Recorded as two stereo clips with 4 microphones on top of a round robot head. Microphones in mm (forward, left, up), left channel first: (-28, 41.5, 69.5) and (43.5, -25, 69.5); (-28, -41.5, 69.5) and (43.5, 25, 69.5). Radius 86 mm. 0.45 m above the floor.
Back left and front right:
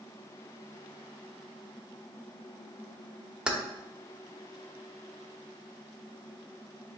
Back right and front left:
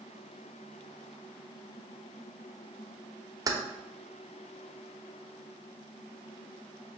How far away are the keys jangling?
About 0.8 m.